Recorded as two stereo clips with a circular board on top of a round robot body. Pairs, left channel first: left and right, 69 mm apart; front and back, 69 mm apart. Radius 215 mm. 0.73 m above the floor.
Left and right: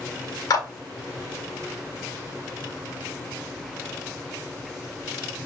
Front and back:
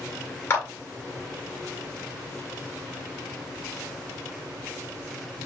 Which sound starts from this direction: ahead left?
A clap, at 0.5 s.